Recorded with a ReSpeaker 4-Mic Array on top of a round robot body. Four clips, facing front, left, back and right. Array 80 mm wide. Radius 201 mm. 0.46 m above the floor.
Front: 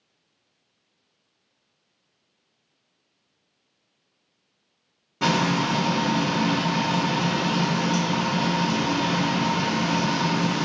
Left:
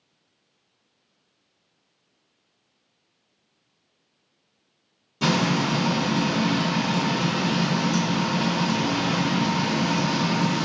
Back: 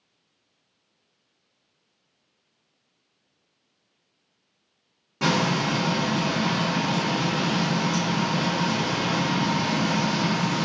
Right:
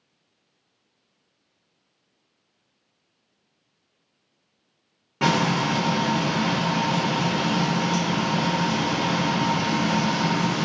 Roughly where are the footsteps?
No footsteps in this recording.